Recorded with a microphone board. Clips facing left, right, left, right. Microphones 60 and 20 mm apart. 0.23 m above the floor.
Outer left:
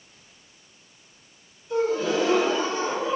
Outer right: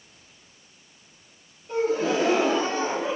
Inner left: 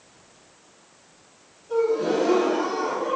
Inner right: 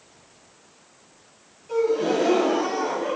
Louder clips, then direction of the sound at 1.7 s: Even, even; 65° right (ahead or behind).